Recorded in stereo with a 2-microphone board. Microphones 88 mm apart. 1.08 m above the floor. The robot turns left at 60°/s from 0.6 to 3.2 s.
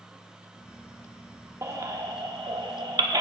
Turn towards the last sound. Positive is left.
turn(degrees=-50)  # may be behind; listen again after turning